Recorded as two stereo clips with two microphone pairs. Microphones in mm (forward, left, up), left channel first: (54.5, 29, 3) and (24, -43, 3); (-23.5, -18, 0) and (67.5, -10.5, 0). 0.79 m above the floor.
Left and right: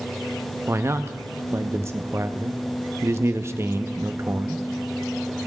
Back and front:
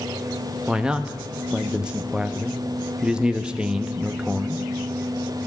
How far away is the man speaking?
About 0.6 m.